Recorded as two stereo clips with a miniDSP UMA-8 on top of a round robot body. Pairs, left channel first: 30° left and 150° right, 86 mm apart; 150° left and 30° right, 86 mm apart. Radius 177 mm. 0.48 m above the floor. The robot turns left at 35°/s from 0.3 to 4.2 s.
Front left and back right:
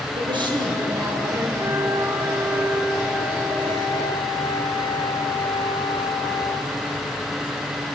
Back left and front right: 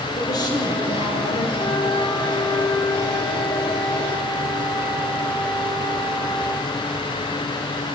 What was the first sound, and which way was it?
A woman speaking, 170° right.